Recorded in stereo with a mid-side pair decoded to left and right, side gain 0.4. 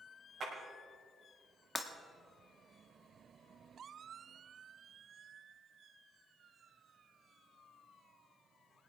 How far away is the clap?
About 6 m.